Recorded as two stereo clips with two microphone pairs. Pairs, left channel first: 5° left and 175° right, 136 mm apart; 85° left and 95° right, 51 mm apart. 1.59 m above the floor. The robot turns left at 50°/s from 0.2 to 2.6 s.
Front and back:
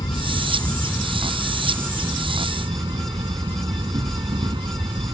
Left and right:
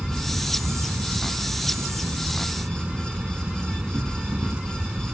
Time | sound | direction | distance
0.0 | an insect | 25° right | ?